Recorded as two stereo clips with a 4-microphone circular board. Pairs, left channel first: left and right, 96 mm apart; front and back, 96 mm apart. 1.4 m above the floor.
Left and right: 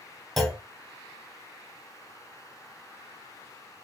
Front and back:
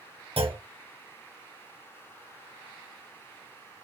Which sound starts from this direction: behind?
A clunk, at 0.4 s.